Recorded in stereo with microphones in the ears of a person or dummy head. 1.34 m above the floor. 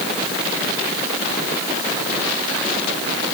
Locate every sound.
Only background noise.